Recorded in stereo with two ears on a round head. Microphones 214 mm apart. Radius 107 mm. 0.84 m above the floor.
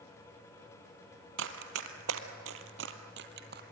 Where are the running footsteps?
55° right (ahead or behind), 1.7 m; by 3.6 s 45° right (ahead or behind), 1.7 m.